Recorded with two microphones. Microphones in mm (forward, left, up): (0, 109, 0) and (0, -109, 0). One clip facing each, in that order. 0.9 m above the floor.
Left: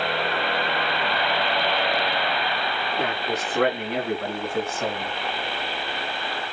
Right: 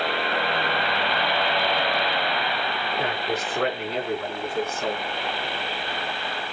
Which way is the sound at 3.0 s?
80° left.